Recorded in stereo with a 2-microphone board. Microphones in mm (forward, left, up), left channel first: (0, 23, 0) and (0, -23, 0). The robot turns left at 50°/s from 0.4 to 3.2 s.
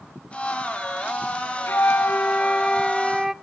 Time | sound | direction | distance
1.7 | a flute | 70° left | 0.5 m